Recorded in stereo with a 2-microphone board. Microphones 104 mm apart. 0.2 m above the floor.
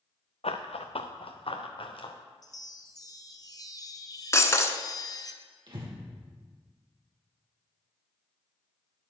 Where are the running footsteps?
75° left (ahead or behind), 0.9 m; by 2.1 s 55° left (ahead or behind), 1.8 m.